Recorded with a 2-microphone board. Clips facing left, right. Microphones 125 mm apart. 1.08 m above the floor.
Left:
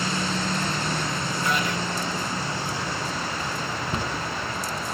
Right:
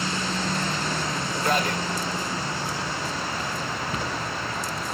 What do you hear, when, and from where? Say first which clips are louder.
1.4 s a man speaking: right 3 dB; 45° right (ahead or behind), 1.8 m
3.9 s a cupboard door: left 1 dB; 35° left (ahead or behind), 1.2 m